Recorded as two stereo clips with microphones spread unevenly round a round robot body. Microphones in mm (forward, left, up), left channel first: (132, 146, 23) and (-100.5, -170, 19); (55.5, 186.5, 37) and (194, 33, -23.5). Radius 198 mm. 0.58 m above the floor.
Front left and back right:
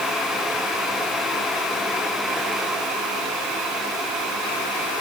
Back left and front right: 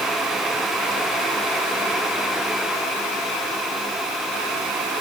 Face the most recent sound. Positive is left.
No sound to turn to.